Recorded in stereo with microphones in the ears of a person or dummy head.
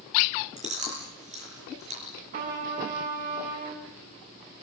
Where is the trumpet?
45° right (ahead or behind), 8.5 m.